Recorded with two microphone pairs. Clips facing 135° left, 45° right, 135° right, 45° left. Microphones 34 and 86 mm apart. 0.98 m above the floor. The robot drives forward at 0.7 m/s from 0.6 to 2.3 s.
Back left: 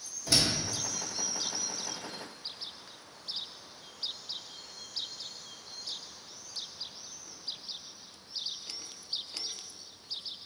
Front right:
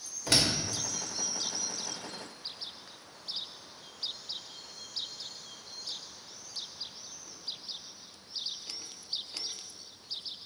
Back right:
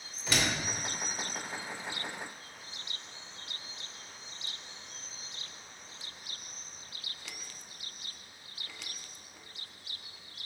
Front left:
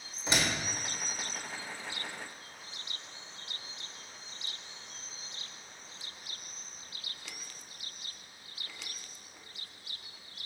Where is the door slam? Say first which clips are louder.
Front right 1 dB, even; 20° right, 2 m.